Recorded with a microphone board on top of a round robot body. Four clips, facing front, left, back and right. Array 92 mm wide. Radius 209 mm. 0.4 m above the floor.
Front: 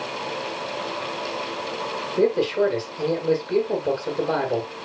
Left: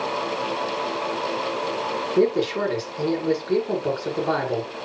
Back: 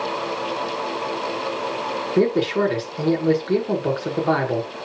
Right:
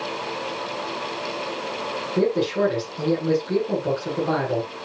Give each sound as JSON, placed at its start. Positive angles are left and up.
{"t": 2.2, "sound": "a man speaking", "azimuth_deg": 165, "distance_m": 9.5}